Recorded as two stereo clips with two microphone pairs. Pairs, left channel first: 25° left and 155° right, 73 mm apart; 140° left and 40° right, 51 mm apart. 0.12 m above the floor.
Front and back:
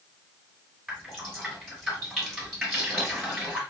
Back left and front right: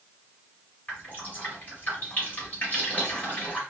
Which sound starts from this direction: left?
Dripping, at 0.9 s.